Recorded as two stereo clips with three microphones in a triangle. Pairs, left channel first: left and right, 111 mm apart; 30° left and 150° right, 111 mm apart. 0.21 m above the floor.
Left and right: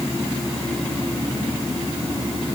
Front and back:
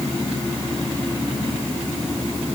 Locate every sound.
Only background noise.